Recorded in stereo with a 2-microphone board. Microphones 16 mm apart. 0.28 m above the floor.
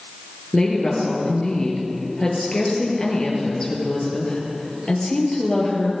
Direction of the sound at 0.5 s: 40° left (ahead or behind).